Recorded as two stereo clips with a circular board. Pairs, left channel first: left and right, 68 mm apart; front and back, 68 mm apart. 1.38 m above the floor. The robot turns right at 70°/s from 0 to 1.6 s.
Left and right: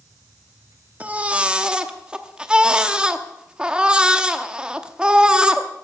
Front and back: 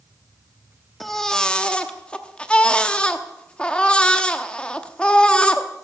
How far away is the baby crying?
About 0.9 m.